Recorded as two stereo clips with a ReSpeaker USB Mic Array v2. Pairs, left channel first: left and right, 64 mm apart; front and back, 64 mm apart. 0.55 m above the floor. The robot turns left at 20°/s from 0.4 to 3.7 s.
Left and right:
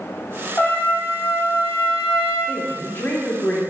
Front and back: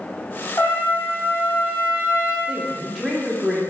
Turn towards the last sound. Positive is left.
turn(degrees=75)